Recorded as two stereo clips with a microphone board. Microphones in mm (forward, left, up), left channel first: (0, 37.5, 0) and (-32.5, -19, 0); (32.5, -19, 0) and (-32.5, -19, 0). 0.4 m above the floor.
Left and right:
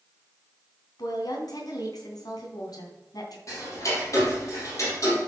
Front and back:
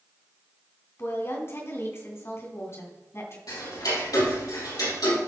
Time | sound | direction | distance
1.0 | a woman speaking | 50° left | 2.5 m
3.5 | ticking | 25° left | 4 m